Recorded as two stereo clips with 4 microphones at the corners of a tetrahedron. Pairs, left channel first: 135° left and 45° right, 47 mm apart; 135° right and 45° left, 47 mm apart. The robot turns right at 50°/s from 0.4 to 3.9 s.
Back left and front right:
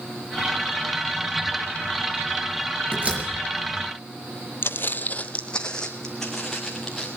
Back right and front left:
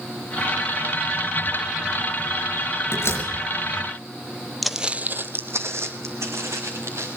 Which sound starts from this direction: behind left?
Footsteps, at 4.6 s.